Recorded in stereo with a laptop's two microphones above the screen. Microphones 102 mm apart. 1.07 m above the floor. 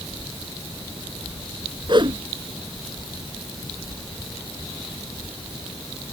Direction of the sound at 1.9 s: 45° right (ahead or behind).